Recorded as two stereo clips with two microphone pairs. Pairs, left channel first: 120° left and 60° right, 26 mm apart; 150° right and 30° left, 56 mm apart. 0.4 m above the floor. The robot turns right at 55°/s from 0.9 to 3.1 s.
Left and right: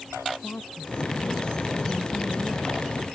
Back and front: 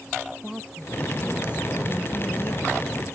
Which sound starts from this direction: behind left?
A woman speaking, at 0.4 s.